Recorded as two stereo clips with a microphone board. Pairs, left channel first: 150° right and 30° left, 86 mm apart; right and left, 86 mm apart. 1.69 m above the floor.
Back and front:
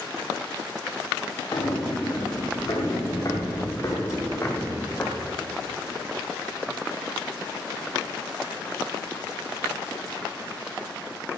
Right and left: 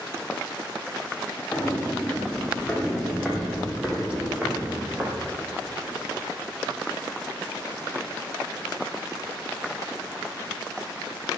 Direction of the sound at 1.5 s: 165° right.